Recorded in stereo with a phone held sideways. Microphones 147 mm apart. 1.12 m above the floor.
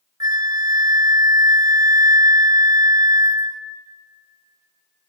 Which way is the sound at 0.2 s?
25° right (ahead or behind).